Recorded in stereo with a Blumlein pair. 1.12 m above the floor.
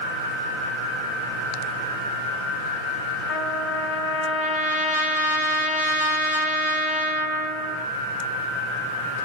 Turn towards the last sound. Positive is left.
turn(degrees=60)